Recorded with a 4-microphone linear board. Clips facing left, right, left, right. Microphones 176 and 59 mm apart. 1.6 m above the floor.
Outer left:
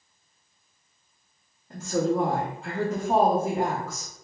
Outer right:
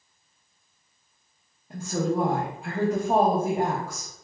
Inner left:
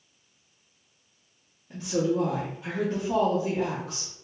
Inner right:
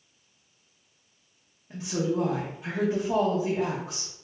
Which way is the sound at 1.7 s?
10° right (ahead or behind).